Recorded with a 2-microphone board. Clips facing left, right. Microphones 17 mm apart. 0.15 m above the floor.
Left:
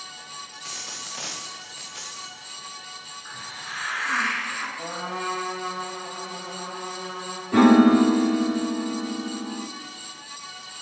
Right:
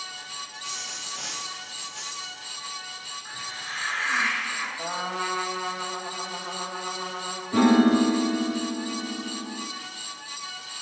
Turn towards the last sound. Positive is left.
turn(degrees=25)  # may be behind; listen again after turning